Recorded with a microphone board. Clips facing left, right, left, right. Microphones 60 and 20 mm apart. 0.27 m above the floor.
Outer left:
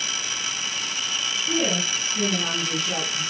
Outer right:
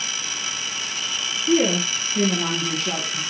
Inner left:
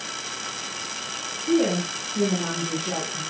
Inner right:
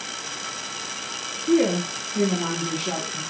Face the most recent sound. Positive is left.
turn(degrees=-65)  # may be behind; listen again after turning